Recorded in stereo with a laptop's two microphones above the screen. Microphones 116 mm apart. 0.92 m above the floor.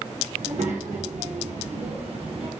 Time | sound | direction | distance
0.3 | a child speaking | 75° right (ahead or behind) | 1.2 m